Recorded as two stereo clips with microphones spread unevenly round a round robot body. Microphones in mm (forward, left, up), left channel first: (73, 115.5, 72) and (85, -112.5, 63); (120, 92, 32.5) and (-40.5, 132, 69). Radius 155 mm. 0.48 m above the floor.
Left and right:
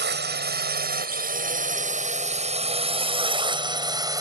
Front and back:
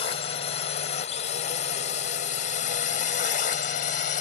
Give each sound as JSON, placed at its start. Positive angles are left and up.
{"t": 0.0, "sound": "a drone", "azimuth_deg": -55}